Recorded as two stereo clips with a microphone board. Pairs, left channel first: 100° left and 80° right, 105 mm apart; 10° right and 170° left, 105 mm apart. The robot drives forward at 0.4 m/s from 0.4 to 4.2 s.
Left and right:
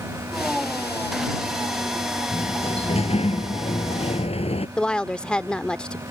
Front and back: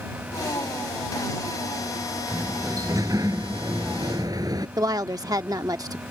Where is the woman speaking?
175° left.